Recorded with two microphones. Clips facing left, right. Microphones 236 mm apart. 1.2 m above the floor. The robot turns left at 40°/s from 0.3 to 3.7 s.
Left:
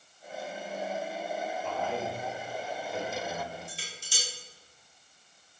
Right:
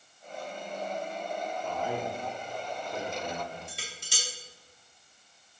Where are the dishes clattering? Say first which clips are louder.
Right 1 dB; 70° right (ahead or behind), 3 m.